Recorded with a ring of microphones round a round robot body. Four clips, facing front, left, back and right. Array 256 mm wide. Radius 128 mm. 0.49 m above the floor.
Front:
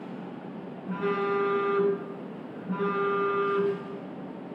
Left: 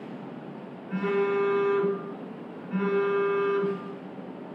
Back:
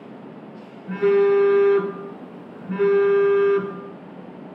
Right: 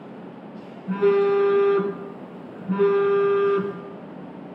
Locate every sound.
0.9 s a phone buzzing: 120° right, 1.8 m